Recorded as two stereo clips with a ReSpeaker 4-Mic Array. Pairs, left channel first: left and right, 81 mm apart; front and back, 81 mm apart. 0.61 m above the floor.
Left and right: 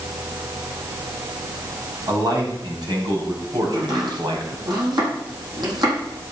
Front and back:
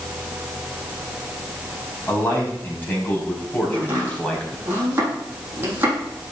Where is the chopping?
115° right, 8.5 m.